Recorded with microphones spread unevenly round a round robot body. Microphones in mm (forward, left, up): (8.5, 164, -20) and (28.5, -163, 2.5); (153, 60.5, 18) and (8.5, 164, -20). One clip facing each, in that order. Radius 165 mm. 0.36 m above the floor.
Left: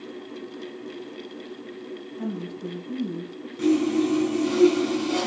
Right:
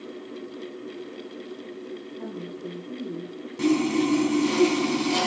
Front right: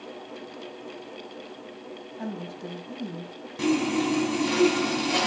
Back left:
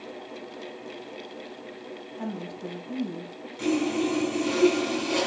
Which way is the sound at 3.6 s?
20° right.